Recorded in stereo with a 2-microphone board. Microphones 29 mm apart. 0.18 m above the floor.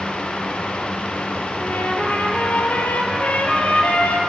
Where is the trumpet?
70° left (ahead or behind), 3.5 m.